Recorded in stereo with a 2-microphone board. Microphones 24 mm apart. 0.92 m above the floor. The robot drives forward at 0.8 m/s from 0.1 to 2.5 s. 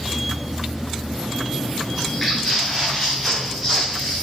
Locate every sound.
1.9 s footsteps: 10° left (ahead or behind), 7.5 m; by 4.2 s centre (ahead or behind), 7.5 m